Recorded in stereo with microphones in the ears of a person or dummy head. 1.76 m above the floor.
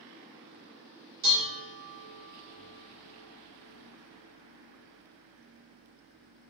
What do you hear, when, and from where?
1.2 s dishes clattering: 55° right (ahead or behind), 1.8 m